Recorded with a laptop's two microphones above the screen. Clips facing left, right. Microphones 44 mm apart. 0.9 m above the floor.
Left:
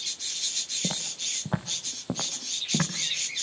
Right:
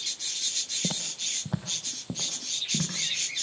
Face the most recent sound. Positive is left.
turn(degrees=55)  # may be behind; listen again after turning